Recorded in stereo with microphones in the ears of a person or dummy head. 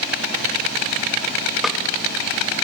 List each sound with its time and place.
1.6 s a snare drum: centre (ahead or behind), 0.8 m